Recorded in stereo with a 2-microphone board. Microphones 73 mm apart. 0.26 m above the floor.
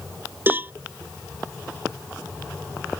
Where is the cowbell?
30° right (ahead or behind).